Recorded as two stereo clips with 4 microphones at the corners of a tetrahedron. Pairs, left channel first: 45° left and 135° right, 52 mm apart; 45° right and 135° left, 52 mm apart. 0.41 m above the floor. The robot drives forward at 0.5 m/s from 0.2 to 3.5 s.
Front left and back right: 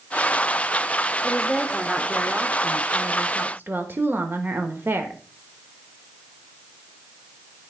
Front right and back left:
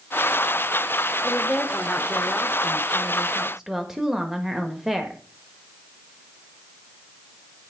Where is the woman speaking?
35° right, 1.0 m; by 5.2 s 150° right, 1.0 m.